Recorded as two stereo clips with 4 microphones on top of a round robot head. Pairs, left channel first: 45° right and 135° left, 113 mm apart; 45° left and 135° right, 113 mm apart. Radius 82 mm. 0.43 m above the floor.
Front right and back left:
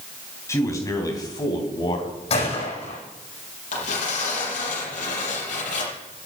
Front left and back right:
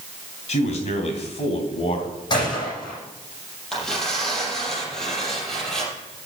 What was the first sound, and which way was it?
A man speaking, 20° left.